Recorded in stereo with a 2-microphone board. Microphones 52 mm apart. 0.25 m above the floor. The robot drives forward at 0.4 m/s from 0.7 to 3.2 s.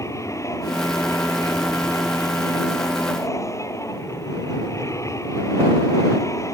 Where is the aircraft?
75° left (ahead or behind).